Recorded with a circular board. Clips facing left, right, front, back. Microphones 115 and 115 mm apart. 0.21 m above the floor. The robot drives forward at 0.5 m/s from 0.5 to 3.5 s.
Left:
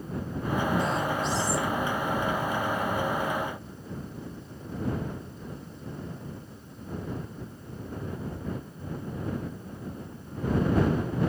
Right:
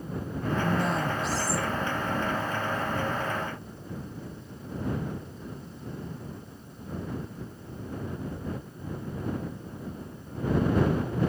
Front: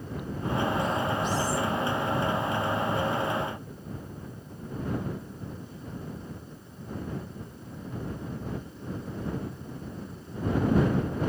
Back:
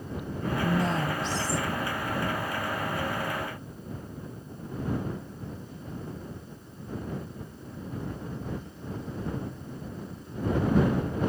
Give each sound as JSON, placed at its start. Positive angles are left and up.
{"t": 0.6, "sound": "a woman speaking", "azimuth_deg": -175, "distance_m": 3.5}